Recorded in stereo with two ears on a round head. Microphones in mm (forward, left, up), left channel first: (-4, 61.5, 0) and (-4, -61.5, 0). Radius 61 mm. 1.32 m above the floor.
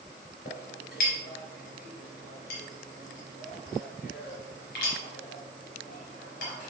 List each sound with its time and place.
0.5 s a clink: 80° left, 3 m